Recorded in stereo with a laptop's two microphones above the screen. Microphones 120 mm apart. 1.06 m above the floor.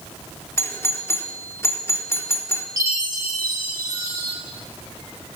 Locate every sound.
0.6 s a doorbell: 20° left (ahead or behind), 4 m
2.8 s a chime: 25° right (ahead or behind), 6.5 m